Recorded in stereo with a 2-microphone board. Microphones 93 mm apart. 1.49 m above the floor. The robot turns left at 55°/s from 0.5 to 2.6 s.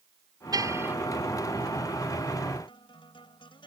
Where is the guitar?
60° left (ahead or behind).